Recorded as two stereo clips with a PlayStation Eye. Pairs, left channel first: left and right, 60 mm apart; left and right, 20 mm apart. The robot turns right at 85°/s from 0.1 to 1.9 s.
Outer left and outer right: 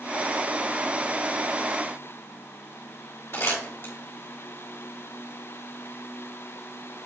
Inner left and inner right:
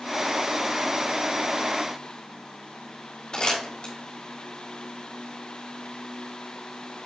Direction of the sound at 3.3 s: 45° left (ahead or behind).